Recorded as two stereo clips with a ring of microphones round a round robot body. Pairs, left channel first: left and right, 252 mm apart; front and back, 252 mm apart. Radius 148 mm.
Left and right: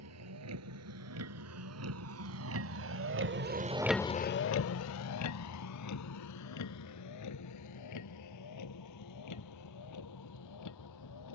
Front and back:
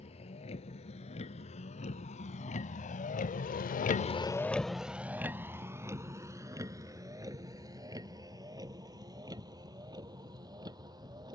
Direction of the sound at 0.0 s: 70° right.